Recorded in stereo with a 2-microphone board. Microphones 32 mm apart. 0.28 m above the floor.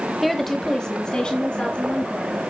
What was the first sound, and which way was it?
A woman speaking, centre (ahead or behind).